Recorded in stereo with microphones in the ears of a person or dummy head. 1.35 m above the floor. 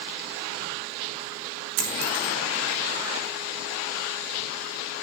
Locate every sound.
1.8 s a dropped coin: 75° right (ahead or behind), 4.5 m